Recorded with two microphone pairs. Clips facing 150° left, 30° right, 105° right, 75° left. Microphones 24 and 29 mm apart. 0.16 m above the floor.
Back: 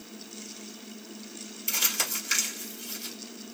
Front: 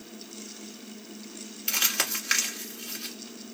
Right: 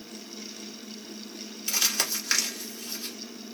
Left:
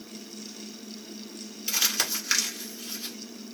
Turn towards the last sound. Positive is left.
turn(degrees=-10)